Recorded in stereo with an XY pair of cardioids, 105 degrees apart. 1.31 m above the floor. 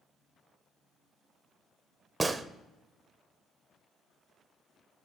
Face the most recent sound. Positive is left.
turn(degrees=-20)